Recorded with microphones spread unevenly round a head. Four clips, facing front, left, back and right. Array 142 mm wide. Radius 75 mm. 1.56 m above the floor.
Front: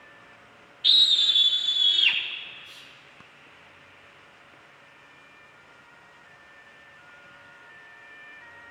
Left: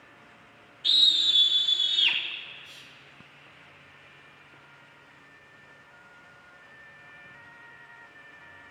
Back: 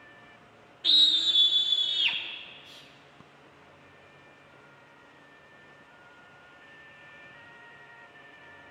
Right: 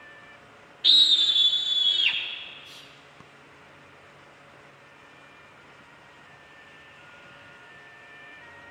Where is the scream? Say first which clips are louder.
Right 3 dB, front 3 dB; 145° right, 0.7 m; by 2.2 s 150° left, 1.9 m.